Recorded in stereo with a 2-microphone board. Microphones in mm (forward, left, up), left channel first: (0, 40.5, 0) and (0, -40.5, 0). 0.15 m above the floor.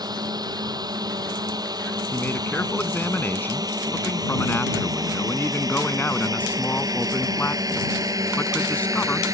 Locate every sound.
0.0 s a drone: 55° right (ahead or behind); by 9.4 s 45° right (ahead or behind)
2.1 s a man speaking: 25° left (ahead or behind)